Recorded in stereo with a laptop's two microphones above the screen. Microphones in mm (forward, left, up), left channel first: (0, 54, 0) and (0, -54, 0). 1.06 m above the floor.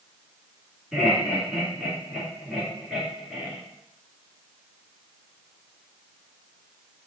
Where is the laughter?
10° right (ahead or behind), 2 m.